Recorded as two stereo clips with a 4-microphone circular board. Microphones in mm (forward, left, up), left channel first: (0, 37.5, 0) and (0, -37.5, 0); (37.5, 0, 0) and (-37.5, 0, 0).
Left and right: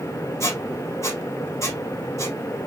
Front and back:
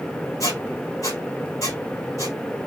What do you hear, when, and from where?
0.4 s a squeak: 40° left, 2.5 m